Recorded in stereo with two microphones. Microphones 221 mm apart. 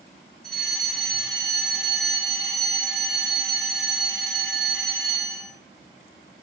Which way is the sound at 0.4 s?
Centre (ahead or behind).